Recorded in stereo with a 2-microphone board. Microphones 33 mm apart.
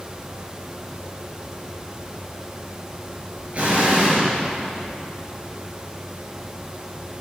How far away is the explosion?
About 3 m.